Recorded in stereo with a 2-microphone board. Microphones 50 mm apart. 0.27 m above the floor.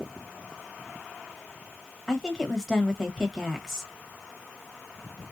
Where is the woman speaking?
10° left (ahead or behind), 1.3 m.